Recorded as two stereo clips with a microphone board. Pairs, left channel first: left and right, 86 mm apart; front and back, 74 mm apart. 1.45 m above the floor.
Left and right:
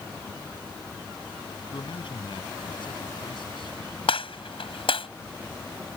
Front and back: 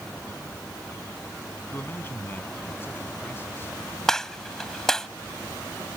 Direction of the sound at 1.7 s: 60° left.